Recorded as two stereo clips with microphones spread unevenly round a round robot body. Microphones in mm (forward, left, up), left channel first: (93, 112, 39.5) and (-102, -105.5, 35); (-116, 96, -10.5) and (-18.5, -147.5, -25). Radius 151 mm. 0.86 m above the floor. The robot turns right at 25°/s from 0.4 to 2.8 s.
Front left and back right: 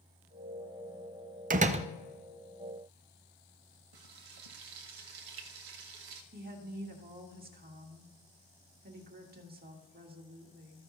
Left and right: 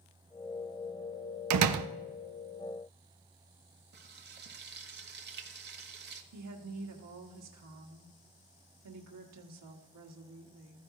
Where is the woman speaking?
75° right, 1.6 m.